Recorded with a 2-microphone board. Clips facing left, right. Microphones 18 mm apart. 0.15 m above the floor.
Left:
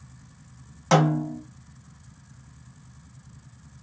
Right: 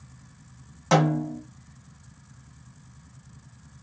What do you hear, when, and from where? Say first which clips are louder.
0.9 s a snare drum: left 1 dB; 10° left (ahead or behind), 1.4 m